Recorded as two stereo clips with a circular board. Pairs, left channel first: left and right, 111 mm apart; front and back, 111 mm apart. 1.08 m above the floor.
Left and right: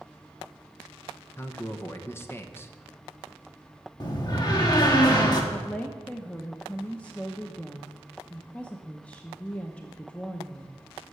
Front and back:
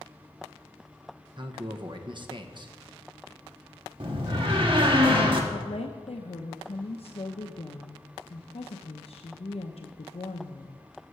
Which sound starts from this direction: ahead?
A woman speaking, at 5.5 s.